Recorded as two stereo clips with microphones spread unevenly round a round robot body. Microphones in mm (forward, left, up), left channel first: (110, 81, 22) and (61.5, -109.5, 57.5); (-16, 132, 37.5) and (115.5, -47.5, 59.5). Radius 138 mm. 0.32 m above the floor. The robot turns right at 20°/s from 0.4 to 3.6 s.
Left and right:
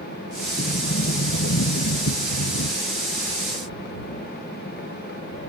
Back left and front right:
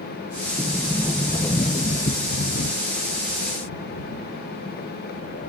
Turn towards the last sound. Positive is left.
turn(degrees=95)